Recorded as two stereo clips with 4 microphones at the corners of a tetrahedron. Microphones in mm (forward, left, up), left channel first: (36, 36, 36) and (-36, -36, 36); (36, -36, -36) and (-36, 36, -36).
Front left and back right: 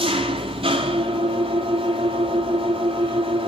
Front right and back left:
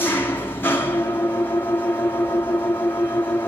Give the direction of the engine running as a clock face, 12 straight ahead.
4 o'clock.